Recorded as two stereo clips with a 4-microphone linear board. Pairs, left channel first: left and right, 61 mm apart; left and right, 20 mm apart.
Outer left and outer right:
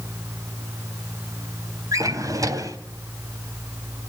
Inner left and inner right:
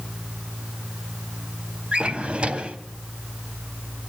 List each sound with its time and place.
1.9 s a drawer: 75° right (ahead or behind), 1.2 m